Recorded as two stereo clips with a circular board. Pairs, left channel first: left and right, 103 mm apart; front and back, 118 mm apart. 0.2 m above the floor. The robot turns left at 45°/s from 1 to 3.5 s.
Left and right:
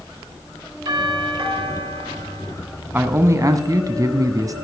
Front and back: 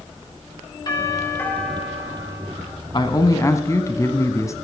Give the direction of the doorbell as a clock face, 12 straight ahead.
2 o'clock.